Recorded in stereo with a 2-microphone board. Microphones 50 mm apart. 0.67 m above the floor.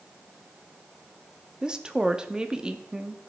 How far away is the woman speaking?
About 0.7 m.